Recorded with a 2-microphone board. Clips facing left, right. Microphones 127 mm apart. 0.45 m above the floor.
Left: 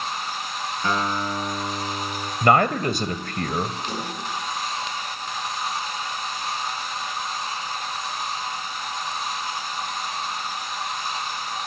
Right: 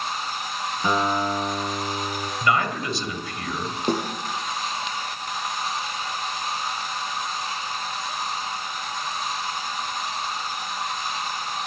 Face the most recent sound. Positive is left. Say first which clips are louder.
# right 7 dB
turn(degrees=-55)  # may be behind; listen again after turning